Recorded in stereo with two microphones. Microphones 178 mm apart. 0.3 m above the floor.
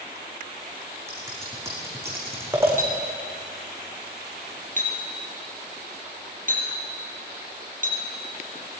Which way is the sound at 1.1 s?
15° right (ahead or behind).